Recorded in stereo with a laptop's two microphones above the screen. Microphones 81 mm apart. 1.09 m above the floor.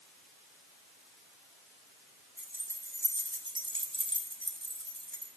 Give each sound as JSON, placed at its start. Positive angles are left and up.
{"t": 2.4, "sound": "keys jangling", "side_deg": -15, "distance_m": 1.3}